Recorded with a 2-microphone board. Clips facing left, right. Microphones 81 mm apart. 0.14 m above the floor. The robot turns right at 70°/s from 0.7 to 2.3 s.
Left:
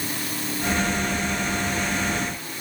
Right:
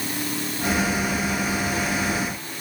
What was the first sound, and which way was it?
Only background noise.